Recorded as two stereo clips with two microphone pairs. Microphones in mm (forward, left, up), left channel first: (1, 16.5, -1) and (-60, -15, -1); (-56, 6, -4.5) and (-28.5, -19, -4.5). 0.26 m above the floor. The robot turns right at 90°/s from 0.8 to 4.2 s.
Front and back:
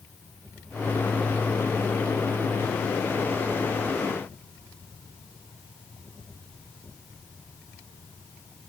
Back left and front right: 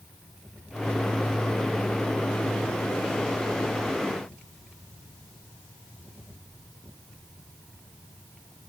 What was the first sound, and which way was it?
Only background noise.